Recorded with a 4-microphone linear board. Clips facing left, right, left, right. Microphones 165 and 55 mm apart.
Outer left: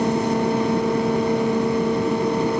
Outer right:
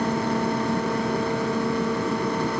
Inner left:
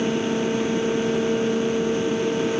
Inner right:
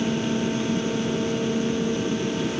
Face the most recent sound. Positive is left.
No sound to turn to.